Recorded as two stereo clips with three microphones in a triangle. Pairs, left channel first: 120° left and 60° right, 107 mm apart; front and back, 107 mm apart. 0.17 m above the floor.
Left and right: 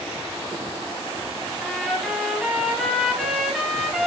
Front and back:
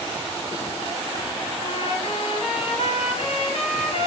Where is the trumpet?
30° left, 1.1 m.